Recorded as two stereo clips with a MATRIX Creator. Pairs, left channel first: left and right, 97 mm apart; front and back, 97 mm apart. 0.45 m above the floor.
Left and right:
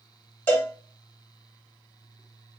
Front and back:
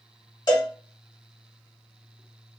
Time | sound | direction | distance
0.5 | a cowbell | 30° left | 1.5 m